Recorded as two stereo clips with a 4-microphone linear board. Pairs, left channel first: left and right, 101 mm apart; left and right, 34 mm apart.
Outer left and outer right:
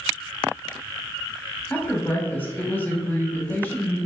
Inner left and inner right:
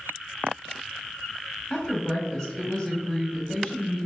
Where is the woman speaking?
20° left (ahead or behind), 1.1 m.